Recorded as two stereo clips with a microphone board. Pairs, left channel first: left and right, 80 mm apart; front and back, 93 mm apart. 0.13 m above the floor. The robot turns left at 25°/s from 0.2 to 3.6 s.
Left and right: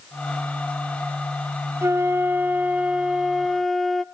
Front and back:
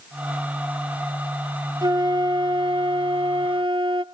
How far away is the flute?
About 0.7 m.